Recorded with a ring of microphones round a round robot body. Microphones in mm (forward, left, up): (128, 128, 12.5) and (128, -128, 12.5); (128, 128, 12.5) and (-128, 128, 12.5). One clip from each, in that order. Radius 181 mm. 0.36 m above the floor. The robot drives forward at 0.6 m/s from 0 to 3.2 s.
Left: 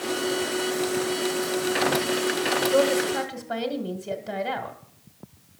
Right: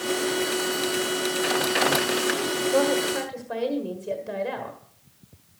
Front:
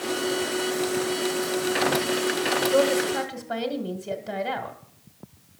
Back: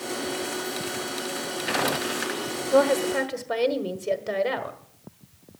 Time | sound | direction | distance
2.7 | a woman speaking | 140° left | 1.2 m